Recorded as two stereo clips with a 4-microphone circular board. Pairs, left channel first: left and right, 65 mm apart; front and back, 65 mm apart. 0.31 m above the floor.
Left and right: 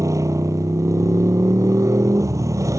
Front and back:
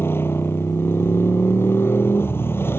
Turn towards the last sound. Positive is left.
turn(degrees=-55)